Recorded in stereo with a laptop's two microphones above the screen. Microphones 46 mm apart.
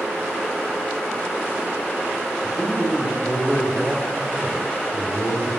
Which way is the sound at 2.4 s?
10° right (ahead or behind).